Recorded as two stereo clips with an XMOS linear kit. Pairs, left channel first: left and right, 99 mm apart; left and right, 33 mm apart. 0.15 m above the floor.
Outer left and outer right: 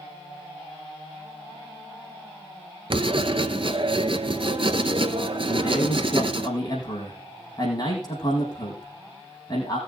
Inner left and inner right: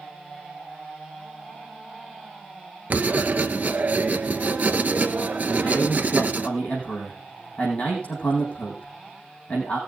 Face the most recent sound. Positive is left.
turn(degrees=40)  # may be behind; listen again after turning